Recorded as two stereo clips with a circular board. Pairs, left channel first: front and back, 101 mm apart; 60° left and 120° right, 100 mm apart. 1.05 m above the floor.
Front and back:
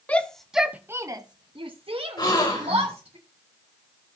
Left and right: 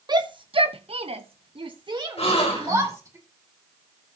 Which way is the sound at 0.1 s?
75° right.